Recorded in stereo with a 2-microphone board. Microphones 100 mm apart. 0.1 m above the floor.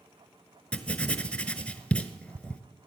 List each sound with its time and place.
0.7 s writing: 15° left (ahead or behind), 1.0 m